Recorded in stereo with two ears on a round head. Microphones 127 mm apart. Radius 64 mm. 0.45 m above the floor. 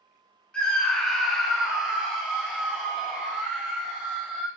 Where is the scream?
10° left (ahead or behind), 0.9 m; by 4.5 s 15° right (ahead or behind), 1.8 m.